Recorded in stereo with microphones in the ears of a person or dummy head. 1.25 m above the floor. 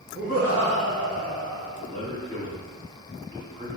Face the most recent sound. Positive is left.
turn(degrees=10)  # may be behind; listen again after turning